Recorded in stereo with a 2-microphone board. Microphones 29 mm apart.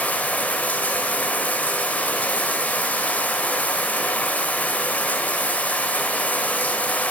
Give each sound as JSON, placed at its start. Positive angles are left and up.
{"t": 0.0, "sound": "running water", "side_deg": 70, "distance_m": 1.8}